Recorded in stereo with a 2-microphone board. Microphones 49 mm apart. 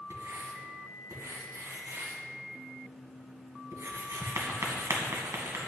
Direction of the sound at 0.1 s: 85° right.